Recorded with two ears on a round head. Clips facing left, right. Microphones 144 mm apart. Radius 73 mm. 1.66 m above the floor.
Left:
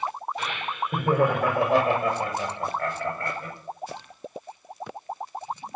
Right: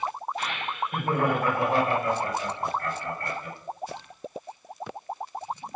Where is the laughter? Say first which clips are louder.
Left 1 dB; 80° left, 5 m; by 3.5 s 55° left (ahead or behind), 7.5 m.